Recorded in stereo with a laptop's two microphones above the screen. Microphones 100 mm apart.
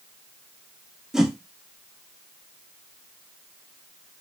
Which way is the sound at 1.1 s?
5° right (ahead or behind).